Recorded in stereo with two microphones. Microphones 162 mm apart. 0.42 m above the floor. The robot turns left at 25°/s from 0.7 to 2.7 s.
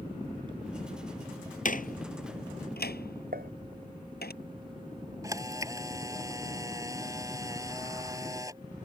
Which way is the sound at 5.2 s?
20° right (ahead or behind).